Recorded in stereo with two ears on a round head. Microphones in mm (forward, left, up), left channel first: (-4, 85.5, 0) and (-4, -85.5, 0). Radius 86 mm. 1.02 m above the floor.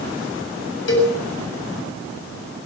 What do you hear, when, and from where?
0.9 s a cowbell: 65° left (ahead or behind), 7.5 m